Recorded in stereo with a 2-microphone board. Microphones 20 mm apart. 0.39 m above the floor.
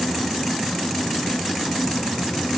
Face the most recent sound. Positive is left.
No sound to turn to.